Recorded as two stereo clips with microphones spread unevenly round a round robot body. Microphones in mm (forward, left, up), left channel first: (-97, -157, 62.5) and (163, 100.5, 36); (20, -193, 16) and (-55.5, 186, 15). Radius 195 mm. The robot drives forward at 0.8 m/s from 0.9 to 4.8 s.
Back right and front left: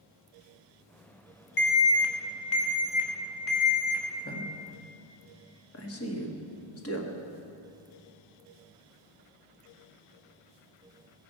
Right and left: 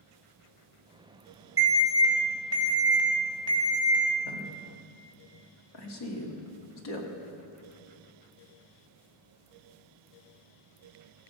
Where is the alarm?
Straight behind, 1.1 m.